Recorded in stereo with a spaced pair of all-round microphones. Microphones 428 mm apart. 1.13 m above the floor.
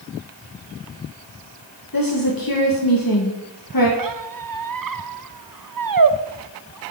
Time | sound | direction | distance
1.9 | a woman speaking | 50° left (ahead or behind) | 1.4 m
4.0 | a squeak | 50° right (ahead or behind) | 0.5 m